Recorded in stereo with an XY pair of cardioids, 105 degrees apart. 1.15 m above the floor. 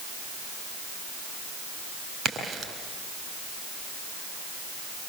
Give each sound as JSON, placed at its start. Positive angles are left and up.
{"t": 2.2, "sound": "a crack", "azimuth_deg": -45, "distance_m": 7.0}